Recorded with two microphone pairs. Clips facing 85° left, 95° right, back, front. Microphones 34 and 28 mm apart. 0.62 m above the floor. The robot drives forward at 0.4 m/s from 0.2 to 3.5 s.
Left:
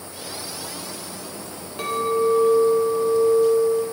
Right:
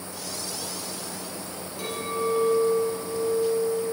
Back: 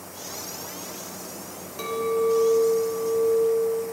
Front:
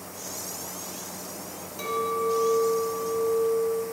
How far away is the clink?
About 1.2 m.